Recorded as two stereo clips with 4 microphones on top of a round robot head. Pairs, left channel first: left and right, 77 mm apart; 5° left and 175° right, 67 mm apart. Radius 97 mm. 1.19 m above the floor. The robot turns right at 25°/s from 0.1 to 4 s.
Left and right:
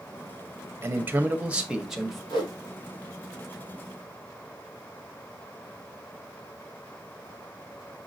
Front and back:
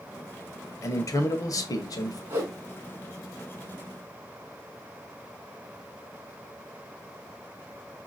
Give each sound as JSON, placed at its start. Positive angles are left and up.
{"t": 0.8, "sound": "a man speaking", "azimuth_deg": -35, "distance_m": 1.2}
{"t": 2.3, "sound": "a whoosh", "azimuth_deg": 125, "distance_m": 2.0}